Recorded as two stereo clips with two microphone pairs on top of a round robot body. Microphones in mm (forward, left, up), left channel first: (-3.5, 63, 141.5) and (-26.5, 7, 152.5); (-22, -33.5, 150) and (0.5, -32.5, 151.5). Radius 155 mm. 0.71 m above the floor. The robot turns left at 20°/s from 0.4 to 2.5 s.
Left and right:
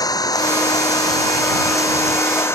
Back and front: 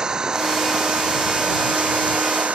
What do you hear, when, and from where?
0.0 s an engine running: 65° left; by 2.6 s 20° left